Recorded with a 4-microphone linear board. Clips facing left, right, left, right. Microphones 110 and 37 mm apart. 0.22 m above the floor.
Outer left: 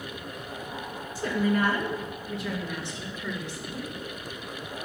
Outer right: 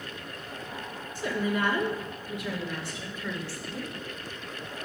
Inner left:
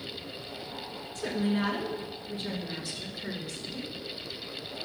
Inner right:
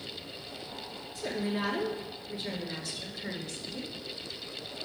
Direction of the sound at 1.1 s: 45° left (ahead or behind).